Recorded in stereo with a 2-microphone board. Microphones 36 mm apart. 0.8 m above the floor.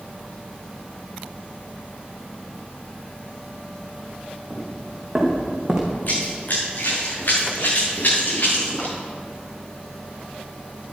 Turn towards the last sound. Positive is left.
turn(degrees=60)  # may be behind; listen again after turning